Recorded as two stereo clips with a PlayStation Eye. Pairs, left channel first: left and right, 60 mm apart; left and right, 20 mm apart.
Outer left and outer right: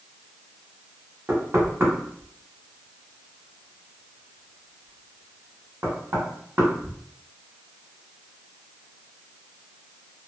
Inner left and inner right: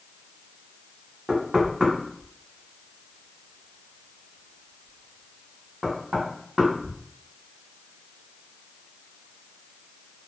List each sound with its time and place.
1.3 s knocking: 40° right (ahead or behind), 1.0 m